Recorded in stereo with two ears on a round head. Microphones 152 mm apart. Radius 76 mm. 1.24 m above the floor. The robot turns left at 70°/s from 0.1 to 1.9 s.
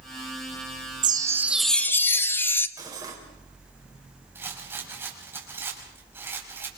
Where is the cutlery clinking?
25° right (ahead or behind), 3.5 m.